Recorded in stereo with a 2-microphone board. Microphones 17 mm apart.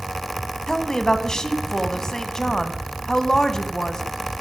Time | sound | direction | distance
0.7 | a woman speaking | 30° left (ahead or behind) | 1.2 m